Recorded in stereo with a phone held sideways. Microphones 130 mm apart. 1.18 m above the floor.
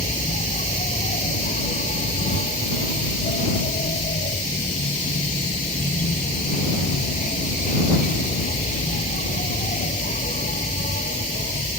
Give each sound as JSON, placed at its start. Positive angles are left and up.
{"t": 0.0, "sound": "an insect", "side_deg": 85}